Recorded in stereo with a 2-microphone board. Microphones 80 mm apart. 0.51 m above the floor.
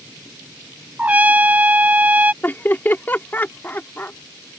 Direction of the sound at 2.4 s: 25° left (ahead or behind).